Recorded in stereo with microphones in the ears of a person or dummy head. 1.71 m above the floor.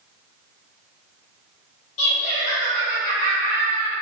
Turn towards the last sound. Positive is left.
turn(degrees=40)  # may be behind; listen again after turning